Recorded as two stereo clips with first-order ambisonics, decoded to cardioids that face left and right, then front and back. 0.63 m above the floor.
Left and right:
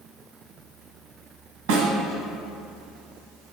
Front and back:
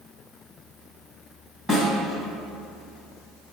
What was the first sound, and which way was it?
A snare drum, 100° right.